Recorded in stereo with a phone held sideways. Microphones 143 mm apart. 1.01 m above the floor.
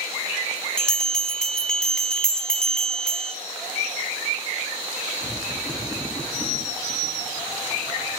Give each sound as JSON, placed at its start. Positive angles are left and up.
{"t": 0.8, "sound": "a bell", "side_deg": 5, "distance_m": 0.7}